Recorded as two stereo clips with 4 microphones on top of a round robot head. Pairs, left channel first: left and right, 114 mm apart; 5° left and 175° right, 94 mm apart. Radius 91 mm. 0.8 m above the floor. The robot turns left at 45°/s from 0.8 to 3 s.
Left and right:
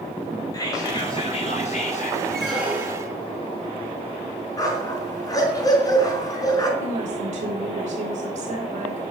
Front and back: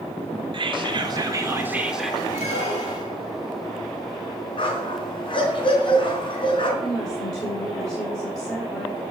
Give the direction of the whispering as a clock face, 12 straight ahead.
7 o'clock.